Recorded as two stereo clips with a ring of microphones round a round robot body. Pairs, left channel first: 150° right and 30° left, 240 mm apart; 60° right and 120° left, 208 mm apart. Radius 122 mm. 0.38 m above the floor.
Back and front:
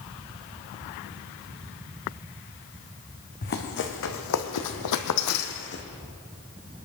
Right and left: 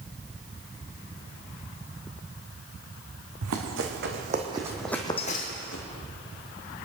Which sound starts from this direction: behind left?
Running footsteps, at 3.4 s.